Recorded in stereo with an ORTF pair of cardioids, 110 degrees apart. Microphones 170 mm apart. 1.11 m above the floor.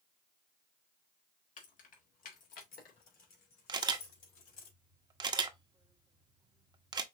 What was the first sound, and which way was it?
Keys jangling, 50° left.